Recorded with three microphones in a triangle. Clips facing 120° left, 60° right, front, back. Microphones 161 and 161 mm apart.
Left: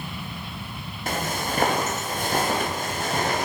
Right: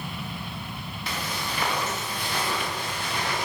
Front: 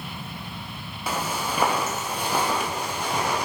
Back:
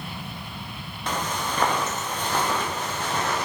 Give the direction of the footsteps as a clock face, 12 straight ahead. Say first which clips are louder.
Left 6 dB, even; 9 o'clock.